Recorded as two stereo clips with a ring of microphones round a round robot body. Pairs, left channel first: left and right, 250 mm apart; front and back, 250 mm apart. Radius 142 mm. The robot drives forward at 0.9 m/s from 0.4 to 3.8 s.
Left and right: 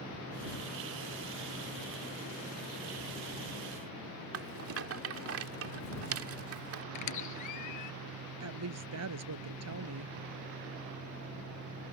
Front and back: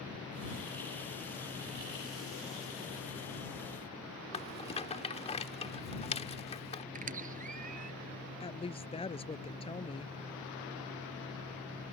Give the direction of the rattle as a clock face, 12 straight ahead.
2 o'clock.